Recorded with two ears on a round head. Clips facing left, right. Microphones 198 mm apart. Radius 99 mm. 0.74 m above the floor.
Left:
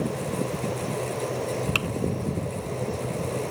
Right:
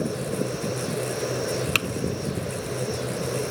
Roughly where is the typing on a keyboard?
Right.